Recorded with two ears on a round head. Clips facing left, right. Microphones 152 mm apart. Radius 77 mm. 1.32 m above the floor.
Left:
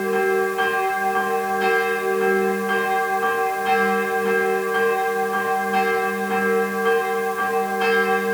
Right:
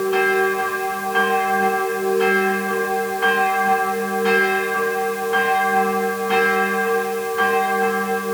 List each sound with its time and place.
Only background noise.